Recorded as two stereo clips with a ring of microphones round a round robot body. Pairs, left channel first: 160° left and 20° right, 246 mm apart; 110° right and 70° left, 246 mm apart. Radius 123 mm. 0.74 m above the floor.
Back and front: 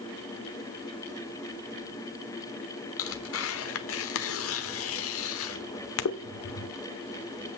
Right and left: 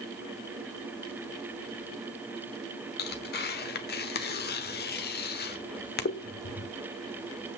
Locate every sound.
3.0 s tearing paper: 165° right, 1.2 m